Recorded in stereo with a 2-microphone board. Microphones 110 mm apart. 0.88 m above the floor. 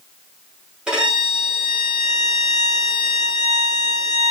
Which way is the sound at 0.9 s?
10° right (ahead or behind).